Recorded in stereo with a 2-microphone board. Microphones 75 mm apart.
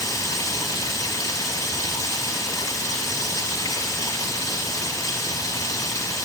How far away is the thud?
I don't hear a thud.